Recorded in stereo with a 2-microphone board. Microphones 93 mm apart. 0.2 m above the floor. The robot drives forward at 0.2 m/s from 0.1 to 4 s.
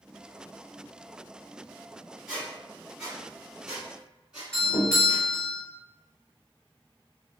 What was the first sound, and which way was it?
A squeak, 10° right (ahead or behind).